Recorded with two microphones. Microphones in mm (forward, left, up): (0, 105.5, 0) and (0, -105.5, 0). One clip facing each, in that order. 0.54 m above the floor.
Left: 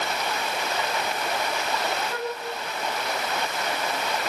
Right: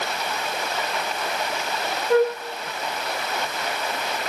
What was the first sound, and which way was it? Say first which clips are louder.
A flute: right 12 dB; 75° right (ahead or behind).